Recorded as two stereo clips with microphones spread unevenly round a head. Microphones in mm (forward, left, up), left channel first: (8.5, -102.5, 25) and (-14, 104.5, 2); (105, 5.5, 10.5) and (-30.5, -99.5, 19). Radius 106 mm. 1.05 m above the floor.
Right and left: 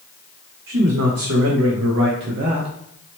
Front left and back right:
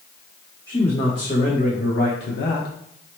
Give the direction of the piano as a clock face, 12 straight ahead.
I don't hear a piano.